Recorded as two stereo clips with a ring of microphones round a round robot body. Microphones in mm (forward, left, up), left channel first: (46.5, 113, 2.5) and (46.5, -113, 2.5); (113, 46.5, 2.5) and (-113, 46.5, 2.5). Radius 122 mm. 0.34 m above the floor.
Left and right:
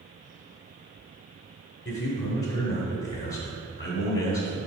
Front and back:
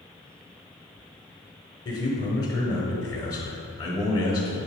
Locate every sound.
1.9 s a man speaking: 70° left, 1.2 m